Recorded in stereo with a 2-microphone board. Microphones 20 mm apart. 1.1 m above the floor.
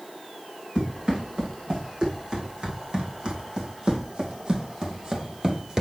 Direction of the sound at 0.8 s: 55° right (ahead or behind).